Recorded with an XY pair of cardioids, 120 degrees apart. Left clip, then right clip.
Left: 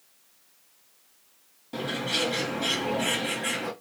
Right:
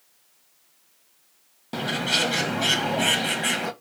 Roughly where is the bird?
Ahead right.